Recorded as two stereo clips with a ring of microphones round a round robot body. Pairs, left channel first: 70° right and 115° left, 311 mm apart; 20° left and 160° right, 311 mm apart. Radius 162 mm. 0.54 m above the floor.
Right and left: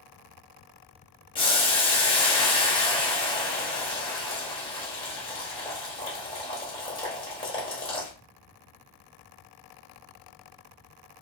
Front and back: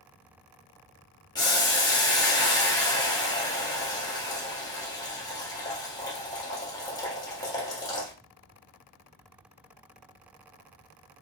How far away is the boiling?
About 1.1 m.